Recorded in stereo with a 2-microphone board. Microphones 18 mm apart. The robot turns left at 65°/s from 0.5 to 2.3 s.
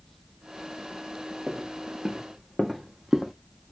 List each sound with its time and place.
1.5 s footsteps: 70° right (ahead or behind), 1.7 m; by 3.3 s 30° right (ahead or behind), 0.6 m